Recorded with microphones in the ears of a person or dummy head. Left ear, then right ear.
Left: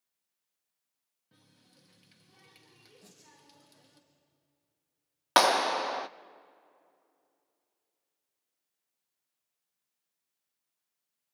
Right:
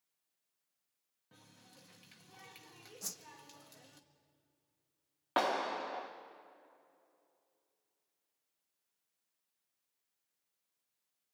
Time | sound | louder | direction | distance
1.3 | a running tap | right 3 dB | 30° right (ahead or behind) | 1.3 m
3.0 | a whoosh | right 13 dB | 60° right (ahead or behind) | 1.0 m
5.4 | a clap | left 10 dB | 65° left (ahead or behind) | 0.6 m